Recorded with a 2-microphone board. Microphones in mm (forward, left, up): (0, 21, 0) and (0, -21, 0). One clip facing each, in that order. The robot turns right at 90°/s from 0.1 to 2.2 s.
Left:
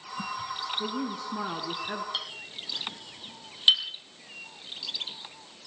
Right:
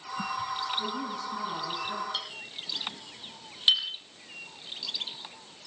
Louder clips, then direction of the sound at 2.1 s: Left 1 dB; 15° left (ahead or behind).